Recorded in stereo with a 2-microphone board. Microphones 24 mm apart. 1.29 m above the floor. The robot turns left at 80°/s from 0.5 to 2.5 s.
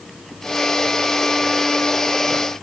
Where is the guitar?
I don't hear a guitar.